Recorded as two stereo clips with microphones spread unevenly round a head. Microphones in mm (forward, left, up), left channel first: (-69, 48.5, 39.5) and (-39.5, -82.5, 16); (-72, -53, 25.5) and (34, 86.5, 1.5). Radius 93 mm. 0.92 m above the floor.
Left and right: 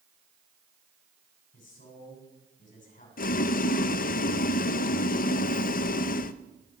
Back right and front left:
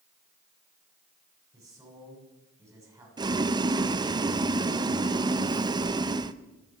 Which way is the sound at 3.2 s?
110° left.